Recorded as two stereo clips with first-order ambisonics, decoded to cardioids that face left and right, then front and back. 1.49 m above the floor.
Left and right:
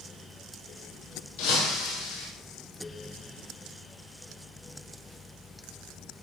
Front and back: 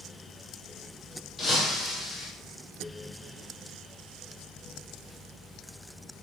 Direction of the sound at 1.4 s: 75° left.